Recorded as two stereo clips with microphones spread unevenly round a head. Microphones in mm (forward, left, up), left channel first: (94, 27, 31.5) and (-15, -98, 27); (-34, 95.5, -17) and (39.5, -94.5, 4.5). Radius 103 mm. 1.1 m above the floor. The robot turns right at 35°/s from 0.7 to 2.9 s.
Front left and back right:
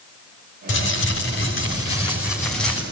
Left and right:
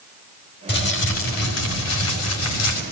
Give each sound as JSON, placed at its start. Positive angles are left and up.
{"t": 0.7, "sound": "crumpling", "azimuth_deg": 70, "distance_m": 6.0}